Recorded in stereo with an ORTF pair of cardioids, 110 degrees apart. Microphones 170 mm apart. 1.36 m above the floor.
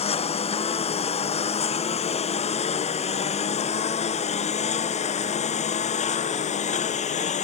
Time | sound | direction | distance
0.0 | a lawn mower | 35° left | ?